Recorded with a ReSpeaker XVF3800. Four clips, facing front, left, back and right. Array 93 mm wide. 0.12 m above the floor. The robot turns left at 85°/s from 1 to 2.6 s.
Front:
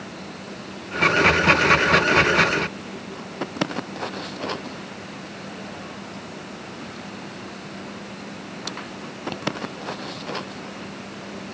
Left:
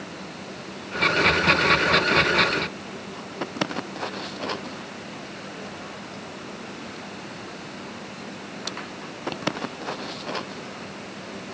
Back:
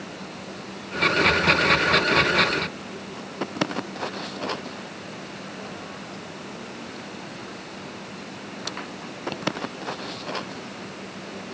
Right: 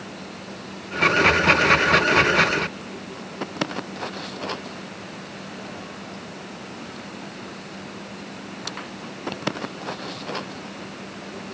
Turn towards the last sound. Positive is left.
No sound to turn to.